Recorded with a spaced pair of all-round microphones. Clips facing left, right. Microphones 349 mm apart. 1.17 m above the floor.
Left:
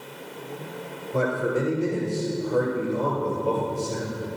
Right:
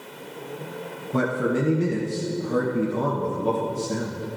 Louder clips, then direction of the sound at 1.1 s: Right 1 dB; 85° right.